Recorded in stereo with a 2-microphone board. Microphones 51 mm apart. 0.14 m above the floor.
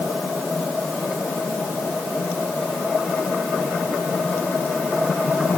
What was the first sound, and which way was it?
Only background noise.